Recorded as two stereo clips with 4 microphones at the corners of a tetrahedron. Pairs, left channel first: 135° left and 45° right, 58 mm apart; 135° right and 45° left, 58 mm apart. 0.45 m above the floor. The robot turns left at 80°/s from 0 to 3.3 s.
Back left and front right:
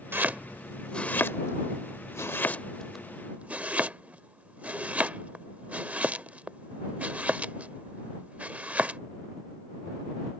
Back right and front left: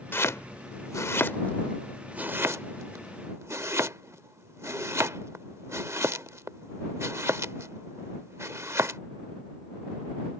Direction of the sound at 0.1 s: 90° right.